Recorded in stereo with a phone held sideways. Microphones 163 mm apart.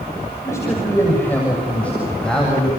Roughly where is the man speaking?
Centre.